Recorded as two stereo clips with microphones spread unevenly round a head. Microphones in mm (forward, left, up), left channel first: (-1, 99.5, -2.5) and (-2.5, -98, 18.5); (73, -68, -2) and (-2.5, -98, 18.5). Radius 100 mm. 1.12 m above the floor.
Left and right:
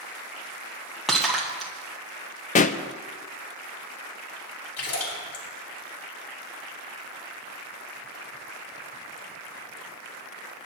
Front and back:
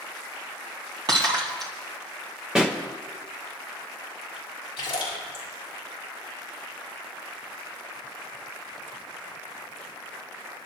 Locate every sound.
1.1 s breaking glass: straight behind, 2.5 m
2.5 s a pop: 105° left, 0.6 m
4.8 s a splash: 70° left, 5.5 m